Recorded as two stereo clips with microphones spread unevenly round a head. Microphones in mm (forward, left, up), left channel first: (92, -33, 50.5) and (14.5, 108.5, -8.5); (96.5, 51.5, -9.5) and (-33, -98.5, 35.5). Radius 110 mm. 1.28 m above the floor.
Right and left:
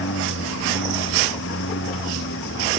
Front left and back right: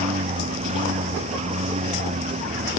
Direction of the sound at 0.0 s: 75° right.